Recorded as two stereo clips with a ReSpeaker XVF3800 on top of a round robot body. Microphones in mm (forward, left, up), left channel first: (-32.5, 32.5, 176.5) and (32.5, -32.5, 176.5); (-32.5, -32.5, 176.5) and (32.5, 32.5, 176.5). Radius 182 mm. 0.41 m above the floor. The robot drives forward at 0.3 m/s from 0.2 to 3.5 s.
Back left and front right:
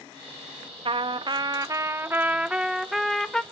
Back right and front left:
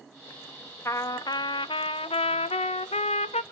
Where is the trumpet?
75° right, 0.6 m; by 3.4 s 140° right, 0.8 m.